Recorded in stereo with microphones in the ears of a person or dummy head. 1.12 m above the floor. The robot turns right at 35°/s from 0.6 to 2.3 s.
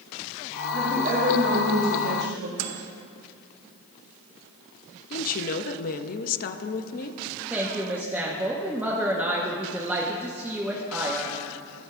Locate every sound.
0.7 s a woman speaking: 160° right, 1.7 m; by 2.5 s 105° right, 1.7 m
2.6 s a microwave: 75° right (ahead or behind), 0.8 m
5.1 s a woman speaking: 40° left (ahead or behind), 0.6 m
7.5 s a woman speaking: 10° right (ahead or behind), 0.9 m